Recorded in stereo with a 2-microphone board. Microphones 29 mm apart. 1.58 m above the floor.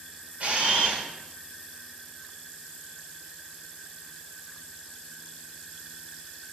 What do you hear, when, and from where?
0.4 s a camera shutter: 50° right (ahead or behind), 1.8 m